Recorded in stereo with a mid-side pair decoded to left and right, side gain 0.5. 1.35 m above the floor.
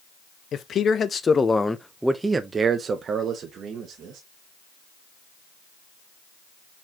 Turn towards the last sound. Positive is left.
turn(degrees=-65)